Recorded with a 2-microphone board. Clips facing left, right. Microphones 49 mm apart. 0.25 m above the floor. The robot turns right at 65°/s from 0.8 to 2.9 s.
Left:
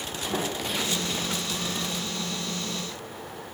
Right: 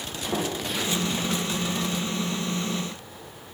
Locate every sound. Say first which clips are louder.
0.3 s a sliding door: right 2 dB; 30° right (ahead or behind), 7 m; by 1.1 s 15° right (ahead or behind), 7 m